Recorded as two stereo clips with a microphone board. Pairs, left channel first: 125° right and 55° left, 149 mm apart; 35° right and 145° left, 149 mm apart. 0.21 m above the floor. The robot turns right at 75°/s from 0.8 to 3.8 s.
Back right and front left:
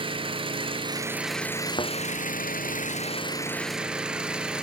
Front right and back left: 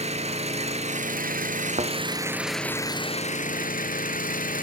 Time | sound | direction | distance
0.0 | an engine running | 105° left | 1.1 m
1.8 | a thud | 175° right | 0.7 m